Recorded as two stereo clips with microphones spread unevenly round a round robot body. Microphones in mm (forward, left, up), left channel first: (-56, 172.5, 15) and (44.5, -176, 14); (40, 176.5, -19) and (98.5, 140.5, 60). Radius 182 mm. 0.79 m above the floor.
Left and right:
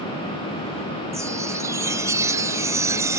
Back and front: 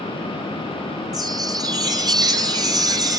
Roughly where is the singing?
No singing in this recording.